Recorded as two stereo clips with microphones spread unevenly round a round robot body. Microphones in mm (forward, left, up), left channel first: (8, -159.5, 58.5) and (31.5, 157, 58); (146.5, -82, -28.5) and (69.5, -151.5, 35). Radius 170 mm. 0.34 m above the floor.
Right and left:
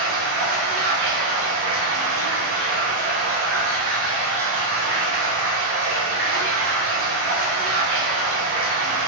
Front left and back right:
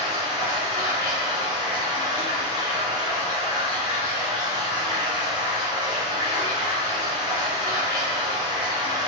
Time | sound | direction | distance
0.0 | running water | 135° left | 0.9 m